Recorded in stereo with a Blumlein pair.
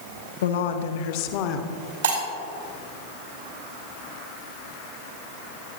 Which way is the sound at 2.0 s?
65° right.